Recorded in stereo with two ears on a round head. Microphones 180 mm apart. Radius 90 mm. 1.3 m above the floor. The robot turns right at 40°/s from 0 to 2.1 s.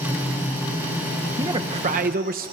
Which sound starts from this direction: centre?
A man speaking, at 1.4 s.